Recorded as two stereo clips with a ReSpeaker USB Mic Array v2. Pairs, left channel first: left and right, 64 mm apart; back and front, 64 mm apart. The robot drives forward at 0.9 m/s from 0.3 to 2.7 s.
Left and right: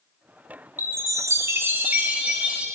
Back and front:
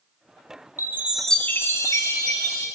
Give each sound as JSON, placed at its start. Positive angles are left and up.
{"t": 0.8, "sound": "a chime", "azimuth_deg": -45, "distance_m": 0.6}